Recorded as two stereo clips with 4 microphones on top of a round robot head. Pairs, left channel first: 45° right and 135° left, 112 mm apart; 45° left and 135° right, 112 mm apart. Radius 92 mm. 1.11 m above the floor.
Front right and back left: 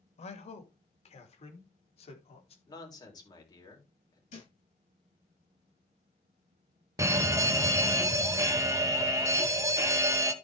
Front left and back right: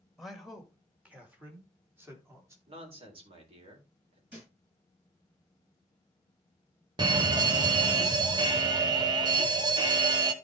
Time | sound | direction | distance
0.2 | a man speaking | 45° right | 2 m
2.7 | a man speaking | 100° right | 4 m
4.3 | a thud | 60° right | 8.5 m
7.0 | a fire alarm | 170° right | 1.5 m